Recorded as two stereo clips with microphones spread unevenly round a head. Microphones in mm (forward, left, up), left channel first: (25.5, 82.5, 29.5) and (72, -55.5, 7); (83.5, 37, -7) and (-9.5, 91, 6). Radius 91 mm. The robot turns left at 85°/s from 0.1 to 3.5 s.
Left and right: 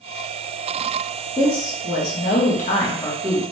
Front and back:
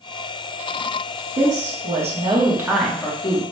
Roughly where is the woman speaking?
Behind.